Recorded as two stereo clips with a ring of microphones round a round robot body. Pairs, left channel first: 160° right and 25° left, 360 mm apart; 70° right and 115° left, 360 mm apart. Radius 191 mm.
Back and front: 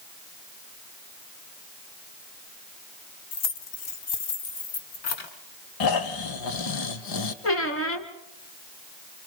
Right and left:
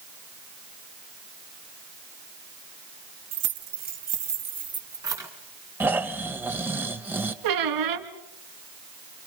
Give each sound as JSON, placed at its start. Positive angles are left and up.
{"t": 3.3, "sound": "keys jangling", "azimuth_deg": 170, "distance_m": 3.0}
{"t": 5.8, "sound": "snoring", "azimuth_deg": -165, "distance_m": 1.9}
{"t": 7.4, "sound": "a squeak", "azimuth_deg": 150, "distance_m": 2.5}